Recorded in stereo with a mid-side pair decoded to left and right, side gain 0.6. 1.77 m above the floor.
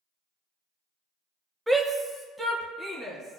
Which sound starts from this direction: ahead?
A shout, at 1.7 s.